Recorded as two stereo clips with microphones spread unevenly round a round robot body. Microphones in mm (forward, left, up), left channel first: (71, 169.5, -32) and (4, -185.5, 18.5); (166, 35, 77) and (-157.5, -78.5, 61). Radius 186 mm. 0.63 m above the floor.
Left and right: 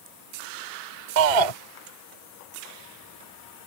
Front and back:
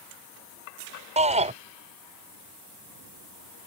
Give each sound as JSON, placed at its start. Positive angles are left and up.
{"t": 1.2, "sound": "a shout", "azimuth_deg": -90}